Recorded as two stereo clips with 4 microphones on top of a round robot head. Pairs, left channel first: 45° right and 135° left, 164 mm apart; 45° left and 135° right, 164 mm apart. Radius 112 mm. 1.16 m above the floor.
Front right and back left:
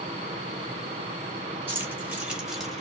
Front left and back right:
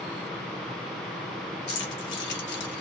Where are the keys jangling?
60° left, 2.5 m; by 2.8 s 45° left, 1.7 m.